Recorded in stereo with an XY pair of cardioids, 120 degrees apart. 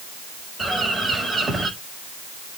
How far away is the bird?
About 4 m.